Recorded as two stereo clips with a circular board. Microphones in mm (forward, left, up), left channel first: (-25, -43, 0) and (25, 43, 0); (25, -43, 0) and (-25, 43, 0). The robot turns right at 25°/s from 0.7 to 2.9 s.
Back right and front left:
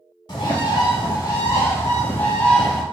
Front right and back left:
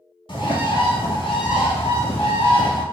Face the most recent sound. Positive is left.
turn(degrees=-30)